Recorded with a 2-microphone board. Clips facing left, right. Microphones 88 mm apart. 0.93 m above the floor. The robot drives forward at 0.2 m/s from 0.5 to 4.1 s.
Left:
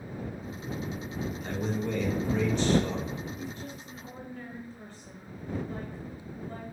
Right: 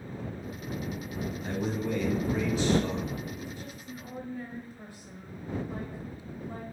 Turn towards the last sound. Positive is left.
turn(degrees=-10)  # may be behind; listen again after turning